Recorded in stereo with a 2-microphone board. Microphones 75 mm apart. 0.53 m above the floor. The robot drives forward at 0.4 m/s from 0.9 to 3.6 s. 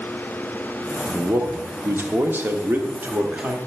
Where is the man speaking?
30° right (ahead or behind), 1.0 m; by 3.6 s 25° right (ahead or behind), 1.3 m.